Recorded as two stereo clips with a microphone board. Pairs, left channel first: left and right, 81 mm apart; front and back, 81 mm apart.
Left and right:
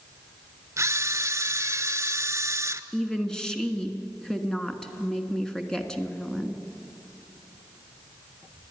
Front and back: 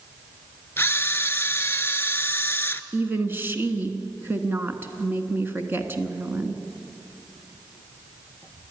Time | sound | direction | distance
0.8 | a camera shutter | 55° right | 0.7 m
2.9 | a woman speaking | 160° left | 1.3 m